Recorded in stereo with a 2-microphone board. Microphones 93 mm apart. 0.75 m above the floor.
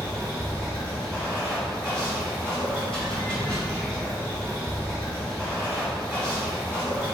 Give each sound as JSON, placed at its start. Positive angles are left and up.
{"t": 0.0, "sound": "running water", "side_deg": 10, "distance_m": 1.6}